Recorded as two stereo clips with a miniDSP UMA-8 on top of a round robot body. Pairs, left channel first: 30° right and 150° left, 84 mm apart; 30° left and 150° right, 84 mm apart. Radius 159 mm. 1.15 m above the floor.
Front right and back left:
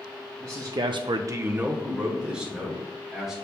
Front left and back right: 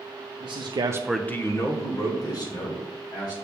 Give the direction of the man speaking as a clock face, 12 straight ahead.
5 o'clock.